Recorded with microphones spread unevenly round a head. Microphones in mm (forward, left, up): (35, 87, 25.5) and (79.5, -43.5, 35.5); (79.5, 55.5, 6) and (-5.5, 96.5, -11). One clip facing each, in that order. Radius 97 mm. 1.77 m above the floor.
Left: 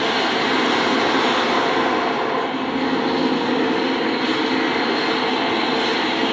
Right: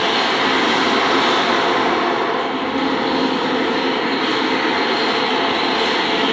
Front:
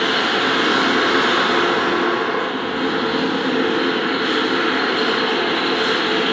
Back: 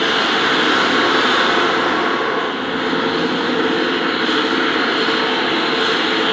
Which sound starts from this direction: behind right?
A machine running, at 0.0 s.